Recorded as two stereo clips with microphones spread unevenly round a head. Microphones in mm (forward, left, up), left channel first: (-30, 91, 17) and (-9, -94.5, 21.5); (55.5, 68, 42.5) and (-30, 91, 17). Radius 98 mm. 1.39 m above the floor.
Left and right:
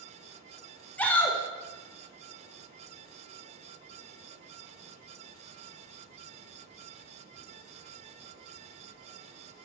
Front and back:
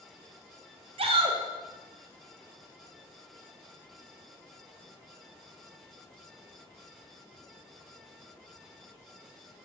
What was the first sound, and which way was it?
A shout, straight behind.